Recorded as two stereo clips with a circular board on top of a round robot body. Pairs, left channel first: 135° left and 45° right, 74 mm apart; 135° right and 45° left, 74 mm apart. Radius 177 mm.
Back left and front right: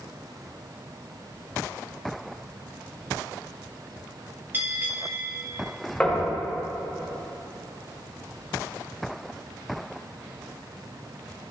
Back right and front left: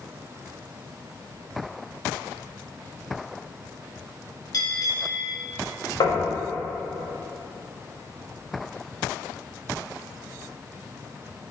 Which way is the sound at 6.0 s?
150° right.